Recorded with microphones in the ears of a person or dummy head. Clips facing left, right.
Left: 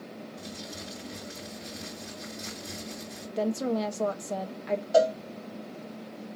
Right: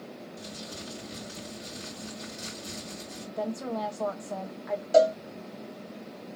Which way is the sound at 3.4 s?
30° left (ahead or behind).